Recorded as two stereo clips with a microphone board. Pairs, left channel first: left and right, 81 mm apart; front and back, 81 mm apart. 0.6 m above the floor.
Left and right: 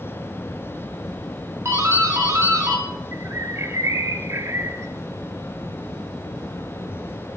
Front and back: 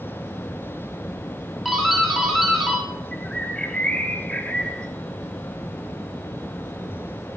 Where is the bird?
70° right, 0.9 m.